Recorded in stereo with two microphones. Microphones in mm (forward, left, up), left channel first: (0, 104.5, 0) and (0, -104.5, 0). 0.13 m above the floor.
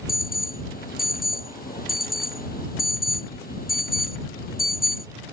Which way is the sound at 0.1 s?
45° left (ahead or behind).